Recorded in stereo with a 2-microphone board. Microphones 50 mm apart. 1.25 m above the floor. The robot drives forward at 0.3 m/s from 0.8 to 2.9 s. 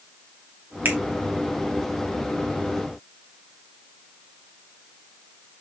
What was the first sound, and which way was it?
A finger snap, 45° right (ahead or behind).